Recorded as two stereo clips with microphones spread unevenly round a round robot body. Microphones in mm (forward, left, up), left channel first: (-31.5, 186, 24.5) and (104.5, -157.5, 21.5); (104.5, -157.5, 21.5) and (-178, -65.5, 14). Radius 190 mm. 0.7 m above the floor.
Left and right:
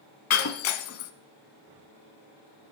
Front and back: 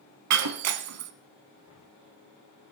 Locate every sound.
0.3 s breaking glass: 155° left, 0.8 m